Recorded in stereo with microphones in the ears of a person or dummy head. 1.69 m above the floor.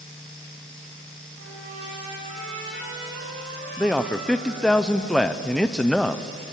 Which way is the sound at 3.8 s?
5° left (ahead or behind).